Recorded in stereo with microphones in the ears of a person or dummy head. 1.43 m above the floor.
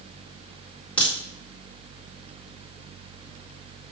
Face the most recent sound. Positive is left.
turn(degrees=10)  # may be behind; listen again after turning